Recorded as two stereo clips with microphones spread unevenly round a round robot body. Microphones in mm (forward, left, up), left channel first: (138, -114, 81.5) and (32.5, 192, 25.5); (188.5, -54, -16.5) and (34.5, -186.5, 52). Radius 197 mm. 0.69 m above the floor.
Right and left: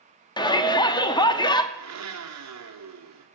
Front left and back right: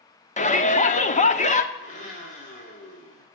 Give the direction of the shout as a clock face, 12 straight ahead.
12 o'clock.